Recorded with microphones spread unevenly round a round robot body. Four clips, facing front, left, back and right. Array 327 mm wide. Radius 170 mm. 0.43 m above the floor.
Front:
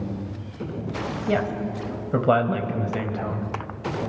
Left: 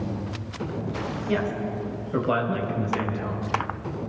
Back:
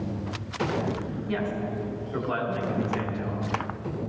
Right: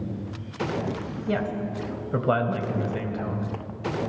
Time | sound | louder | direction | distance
1.3 | a woman speaking | even, front 5 dB | 20° right | 3.5 m